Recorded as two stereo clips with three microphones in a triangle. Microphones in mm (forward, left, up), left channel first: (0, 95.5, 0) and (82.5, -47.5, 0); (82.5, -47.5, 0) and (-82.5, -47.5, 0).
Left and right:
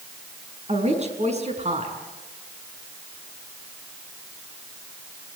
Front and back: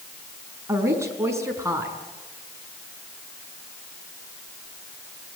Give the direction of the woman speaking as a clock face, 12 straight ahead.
4 o'clock.